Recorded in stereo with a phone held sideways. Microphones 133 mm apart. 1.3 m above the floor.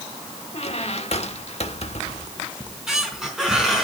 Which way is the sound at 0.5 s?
50° left (ahead or behind).